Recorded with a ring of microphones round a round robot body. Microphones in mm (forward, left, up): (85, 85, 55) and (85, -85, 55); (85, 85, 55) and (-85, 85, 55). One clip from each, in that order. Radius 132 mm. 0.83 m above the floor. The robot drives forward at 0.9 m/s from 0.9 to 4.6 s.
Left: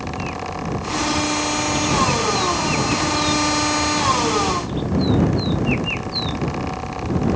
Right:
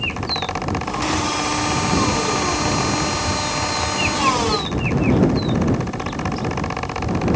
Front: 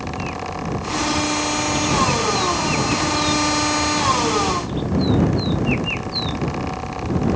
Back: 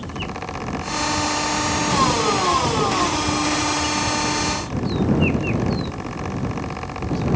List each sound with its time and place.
Only background noise.